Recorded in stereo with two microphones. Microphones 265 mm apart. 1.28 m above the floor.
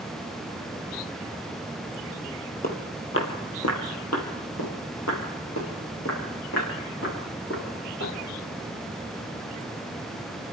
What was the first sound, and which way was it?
Footsteps, 35° left (ahead or behind).